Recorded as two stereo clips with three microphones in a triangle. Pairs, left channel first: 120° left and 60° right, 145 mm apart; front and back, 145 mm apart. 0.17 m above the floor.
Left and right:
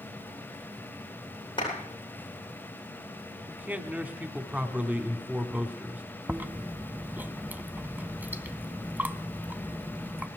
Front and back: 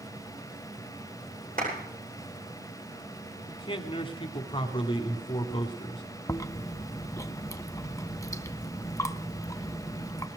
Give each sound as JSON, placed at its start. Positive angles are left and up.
{"t": 1.6, "sound": "a clap", "azimuth_deg": 175, "distance_m": 10.0}
{"t": 3.5, "sound": "a man speaking", "azimuth_deg": 10, "distance_m": 1.4}
{"t": 6.3, "sound": "chewing", "azimuth_deg": -5, "distance_m": 0.7}